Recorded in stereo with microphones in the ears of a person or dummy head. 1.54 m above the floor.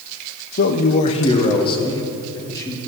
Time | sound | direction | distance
0.6 | a man speaking | 55° left (ahead or behind) | 0.9 m